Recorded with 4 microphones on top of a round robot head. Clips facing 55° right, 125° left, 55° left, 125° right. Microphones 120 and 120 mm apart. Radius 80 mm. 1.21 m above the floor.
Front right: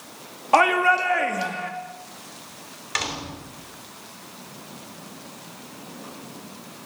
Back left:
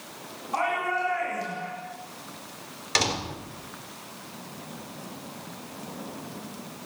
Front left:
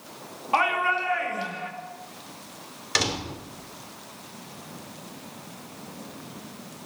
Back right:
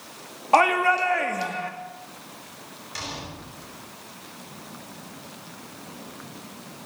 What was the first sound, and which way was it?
A shout, 75° right.